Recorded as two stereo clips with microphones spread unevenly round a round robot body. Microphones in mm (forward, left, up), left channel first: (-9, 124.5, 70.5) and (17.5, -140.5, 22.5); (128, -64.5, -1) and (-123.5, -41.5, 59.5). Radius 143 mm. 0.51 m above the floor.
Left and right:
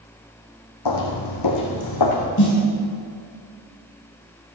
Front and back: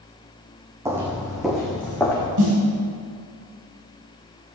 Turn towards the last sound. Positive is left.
turn(degrees=145)